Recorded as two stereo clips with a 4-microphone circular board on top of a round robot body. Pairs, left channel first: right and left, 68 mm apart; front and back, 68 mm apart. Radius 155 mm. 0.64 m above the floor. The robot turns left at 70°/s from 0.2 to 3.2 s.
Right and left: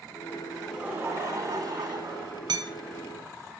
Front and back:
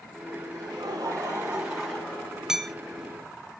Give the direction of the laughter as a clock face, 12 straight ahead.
6 o'clock.